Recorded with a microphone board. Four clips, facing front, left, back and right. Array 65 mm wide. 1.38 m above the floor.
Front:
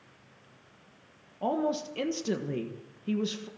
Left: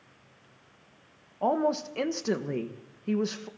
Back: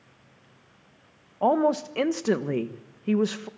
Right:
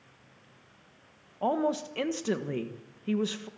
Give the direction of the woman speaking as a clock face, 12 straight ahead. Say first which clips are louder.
Left 2 dB, back 7 dB; 6 o'clock.